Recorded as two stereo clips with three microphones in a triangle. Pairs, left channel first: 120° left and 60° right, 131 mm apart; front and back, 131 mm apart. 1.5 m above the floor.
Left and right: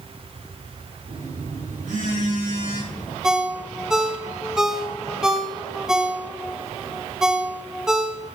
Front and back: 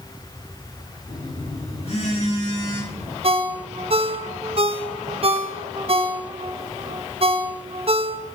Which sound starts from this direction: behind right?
A ringtone, at 3.2 s.